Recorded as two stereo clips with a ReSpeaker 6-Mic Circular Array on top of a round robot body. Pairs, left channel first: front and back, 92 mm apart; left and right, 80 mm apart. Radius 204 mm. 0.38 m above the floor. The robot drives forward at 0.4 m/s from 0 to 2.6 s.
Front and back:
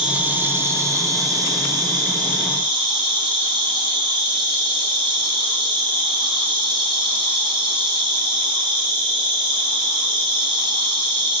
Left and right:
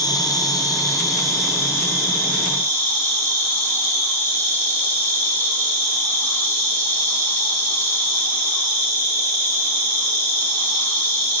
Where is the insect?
105° left, 1.0 m; by 11.4 s 150° left, 1.5 m.